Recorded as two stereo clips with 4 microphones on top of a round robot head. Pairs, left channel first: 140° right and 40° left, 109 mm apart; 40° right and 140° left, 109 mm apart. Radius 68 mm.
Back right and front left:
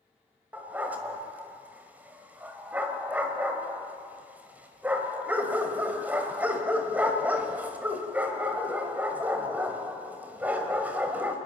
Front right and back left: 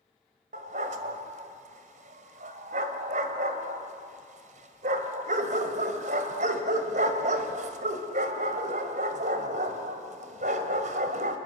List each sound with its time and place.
0.5 s a dog barking: 120° left, 1.6 m